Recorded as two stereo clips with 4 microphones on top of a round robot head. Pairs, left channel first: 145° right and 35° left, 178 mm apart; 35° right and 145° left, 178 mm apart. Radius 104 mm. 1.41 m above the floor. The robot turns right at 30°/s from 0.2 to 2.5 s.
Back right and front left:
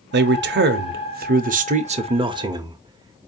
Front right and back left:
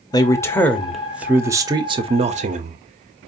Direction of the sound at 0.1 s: 35° left.